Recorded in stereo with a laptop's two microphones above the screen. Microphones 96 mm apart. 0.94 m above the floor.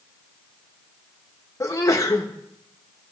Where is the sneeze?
35° left (ahead or behind), 1.2 m.